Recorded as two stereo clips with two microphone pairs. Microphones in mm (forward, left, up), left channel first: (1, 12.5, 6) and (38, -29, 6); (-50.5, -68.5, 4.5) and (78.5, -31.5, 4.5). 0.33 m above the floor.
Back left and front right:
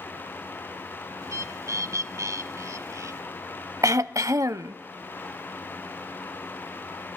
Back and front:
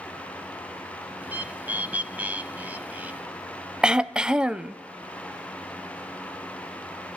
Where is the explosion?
I don't hear an explosion.